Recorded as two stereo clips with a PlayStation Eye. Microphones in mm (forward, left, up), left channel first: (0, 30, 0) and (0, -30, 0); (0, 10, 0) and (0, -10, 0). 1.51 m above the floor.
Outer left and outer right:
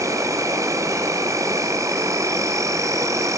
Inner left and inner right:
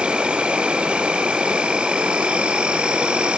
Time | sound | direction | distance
0.0 | an insect | 55° right (ahead or behind) | 0.8 m